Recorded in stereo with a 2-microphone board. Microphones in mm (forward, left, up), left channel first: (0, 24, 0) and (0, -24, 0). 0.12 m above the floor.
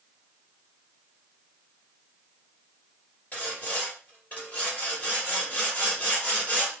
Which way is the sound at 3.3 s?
30° left (ahead or behind).